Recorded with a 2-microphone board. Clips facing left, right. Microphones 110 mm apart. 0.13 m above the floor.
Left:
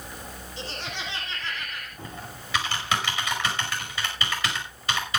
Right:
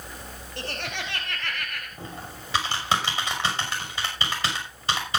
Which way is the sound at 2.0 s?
30° right (ahead or behind).